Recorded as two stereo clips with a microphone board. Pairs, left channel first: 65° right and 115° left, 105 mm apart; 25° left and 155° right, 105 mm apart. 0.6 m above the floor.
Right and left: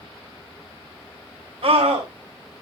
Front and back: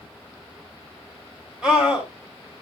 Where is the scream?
125° left, 3 m.